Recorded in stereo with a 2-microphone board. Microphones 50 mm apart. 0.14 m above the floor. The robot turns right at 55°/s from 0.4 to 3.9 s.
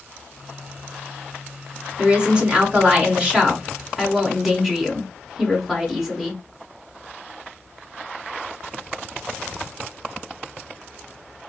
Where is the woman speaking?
20° right (ahead or behind), 1.1 m; by 6.4 s 10° right (ahead or behind), 1.1 m.